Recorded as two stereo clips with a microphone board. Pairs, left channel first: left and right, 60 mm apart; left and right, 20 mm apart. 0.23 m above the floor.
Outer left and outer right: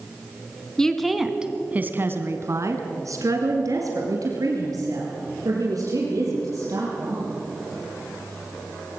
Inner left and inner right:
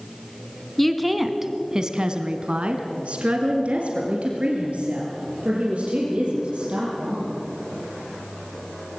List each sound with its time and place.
0.8 s a woman speaking: 10° left (ahead or behind), 1.8 m; by 7.3 s 75° right (ahead or behind), 6.5 m